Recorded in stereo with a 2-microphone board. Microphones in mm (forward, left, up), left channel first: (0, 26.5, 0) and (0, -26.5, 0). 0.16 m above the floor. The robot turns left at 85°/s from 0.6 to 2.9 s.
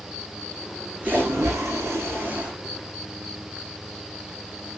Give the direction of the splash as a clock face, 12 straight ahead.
1 o'clock.